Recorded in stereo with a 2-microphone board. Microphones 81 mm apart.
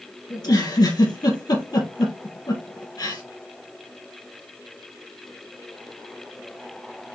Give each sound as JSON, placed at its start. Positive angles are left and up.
{"t": 0.3, "sound": "a giggle", "side_deg": 60, "distance_m": 3.0}